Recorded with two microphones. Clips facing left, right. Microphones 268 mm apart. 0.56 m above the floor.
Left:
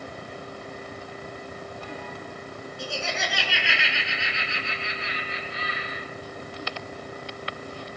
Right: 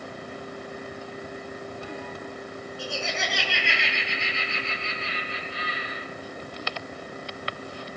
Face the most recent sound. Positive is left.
turn(degrees=25)  # may be behind; listen again after turning